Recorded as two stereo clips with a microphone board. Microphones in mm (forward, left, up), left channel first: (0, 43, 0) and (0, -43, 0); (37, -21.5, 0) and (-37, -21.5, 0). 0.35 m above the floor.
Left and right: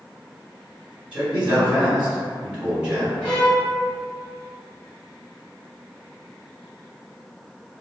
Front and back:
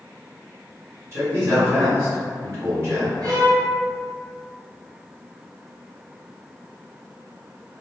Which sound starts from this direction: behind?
A violin, at 3.2 s.